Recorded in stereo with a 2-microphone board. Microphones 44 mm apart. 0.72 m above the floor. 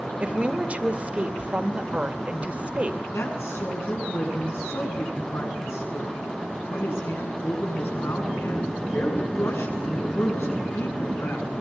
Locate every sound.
0.2 s a woman speaking: 30° right (ahead or behind), 2 m
3.1 s a woman speaking: 85° left, 8 m